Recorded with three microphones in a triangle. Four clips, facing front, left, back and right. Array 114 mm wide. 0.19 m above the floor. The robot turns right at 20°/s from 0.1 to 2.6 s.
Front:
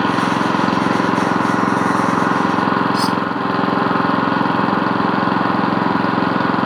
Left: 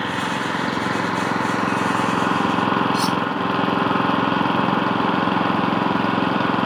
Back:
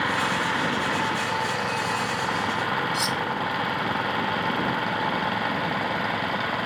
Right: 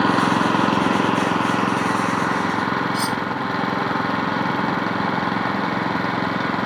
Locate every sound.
0.0 s an engine running: 35° right; by 6.7 s 15° left
2.9 s cutlery clinking: 175° right